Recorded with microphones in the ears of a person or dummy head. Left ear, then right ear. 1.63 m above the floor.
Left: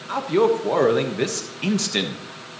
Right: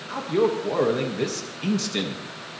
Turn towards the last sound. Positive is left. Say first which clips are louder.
# left 4 dB
turn(degrees=25)  # may be behind; listen again after turning